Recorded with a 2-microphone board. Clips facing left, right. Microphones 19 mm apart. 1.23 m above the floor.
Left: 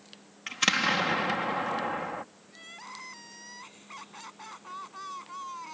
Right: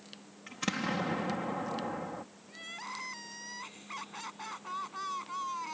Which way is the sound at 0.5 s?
60° left (ahead or behind).